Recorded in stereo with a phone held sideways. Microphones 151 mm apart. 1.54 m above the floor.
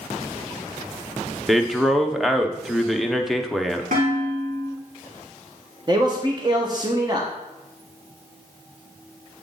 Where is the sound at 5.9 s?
30° right (ahead or behind), 0.9 m.